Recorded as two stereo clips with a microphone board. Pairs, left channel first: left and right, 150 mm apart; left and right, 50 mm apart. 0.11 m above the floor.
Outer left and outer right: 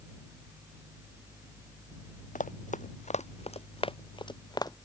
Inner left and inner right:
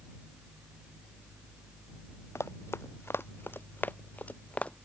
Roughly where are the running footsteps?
Left.